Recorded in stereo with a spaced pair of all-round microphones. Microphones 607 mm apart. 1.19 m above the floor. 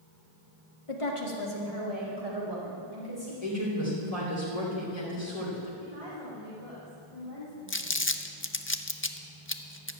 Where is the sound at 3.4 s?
75° left (ahead or behind), 3 m.